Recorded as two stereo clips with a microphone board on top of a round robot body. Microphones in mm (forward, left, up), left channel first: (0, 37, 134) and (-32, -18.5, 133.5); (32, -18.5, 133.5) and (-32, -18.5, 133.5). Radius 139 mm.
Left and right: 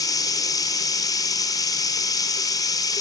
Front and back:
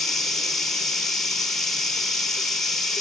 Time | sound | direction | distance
0.0 | running water | 85° left | 0.8 m